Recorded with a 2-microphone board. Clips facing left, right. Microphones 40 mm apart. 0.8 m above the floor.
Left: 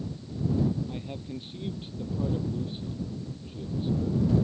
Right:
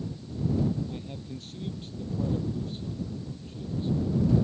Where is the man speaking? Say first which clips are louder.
Left 2 dB; 20° left (ahead or behind); by 4.5 s 15° left (ahead or behind).